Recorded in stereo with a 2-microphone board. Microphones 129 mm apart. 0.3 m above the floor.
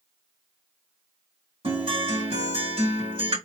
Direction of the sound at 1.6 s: 50° right (ahead or behind).